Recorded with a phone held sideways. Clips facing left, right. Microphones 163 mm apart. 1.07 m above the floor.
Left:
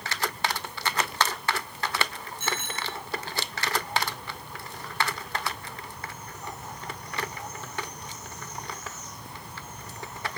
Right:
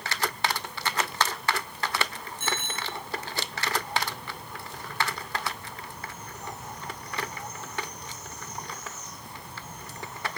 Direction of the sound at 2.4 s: 45° right (ahead or behind).